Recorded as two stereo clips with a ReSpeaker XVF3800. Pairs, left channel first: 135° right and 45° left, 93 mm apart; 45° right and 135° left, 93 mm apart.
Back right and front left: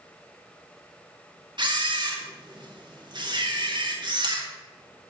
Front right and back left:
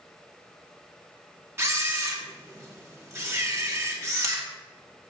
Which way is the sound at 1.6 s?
75° left.